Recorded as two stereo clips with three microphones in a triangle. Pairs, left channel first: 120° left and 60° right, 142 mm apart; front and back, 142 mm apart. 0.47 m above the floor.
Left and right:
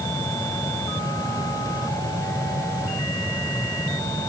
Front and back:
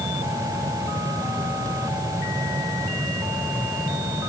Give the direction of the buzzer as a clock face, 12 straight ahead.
I don't hear a buzzer.